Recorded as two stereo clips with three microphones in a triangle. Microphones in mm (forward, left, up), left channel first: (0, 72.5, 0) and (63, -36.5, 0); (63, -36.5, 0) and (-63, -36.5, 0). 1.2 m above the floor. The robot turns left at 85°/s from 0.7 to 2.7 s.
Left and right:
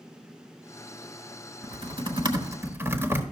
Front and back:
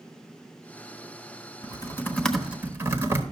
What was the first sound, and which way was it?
Typing on a keyboard, 30° right.